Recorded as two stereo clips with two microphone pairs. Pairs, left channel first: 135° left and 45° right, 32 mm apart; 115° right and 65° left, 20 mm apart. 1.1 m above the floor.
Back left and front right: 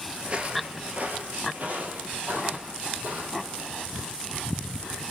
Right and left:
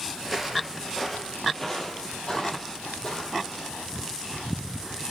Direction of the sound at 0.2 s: 15° right.